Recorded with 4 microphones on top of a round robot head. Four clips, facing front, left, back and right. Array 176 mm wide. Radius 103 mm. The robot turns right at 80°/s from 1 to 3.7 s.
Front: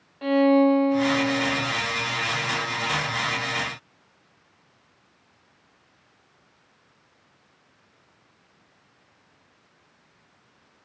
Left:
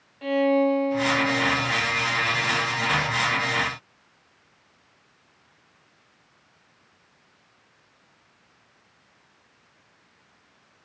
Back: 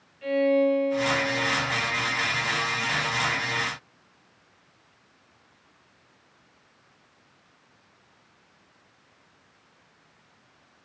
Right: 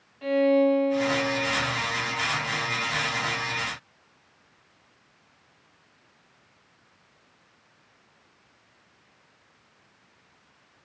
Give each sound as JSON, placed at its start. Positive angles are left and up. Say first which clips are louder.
{"t": 0.2, "sound": "a violin", "louder": "even, front 4 dB", "azimuth_deg": 5, "distance_m": 0.7}